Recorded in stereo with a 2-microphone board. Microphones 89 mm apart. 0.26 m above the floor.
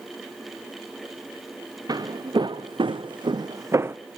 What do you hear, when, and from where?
1.9 s footsteps: 50° right (ahead or behind), 1.2 m; by 4.0 s 25° right (ahead or behind), 0.7 m